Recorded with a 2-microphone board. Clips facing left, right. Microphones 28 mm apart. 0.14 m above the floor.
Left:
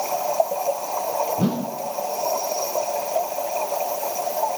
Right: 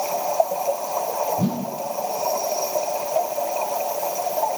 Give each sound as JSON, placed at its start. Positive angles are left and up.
{"t": 1.4, "sound": "a whoosh", "side_deg": 45, "distance_m": 1.5}